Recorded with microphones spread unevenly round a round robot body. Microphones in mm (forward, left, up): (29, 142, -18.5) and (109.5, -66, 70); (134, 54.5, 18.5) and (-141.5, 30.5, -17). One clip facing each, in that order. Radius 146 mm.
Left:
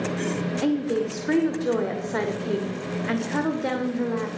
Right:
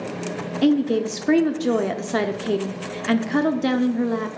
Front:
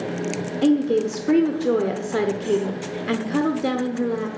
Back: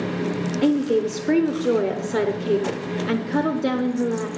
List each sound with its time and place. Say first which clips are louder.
0.6 s a woman speaking: right 6 dB, front 1 dB; 95° right, 0.9 m